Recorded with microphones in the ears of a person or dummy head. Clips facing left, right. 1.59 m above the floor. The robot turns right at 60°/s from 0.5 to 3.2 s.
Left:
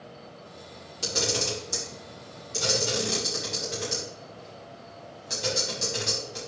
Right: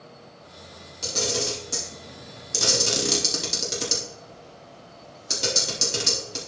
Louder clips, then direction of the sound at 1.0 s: Right 1 dB; 15° left (ahead or behind).